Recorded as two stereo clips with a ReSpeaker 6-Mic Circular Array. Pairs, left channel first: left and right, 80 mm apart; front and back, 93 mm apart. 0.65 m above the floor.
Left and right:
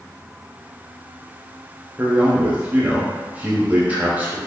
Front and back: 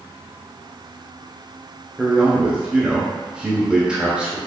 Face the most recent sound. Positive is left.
turn(degrees=-115)